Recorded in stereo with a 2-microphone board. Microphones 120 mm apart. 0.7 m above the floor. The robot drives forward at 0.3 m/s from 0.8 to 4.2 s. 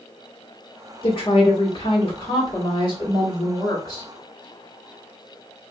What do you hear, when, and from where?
1.0 s a woman speaking: 50° left (ahead or behind), 1.3 m; by 4.1 s 35° left (ahead or behind), 1.7 m